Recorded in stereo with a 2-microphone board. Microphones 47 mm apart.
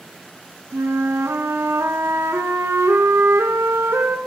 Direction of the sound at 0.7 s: 75° right (ahead or behind).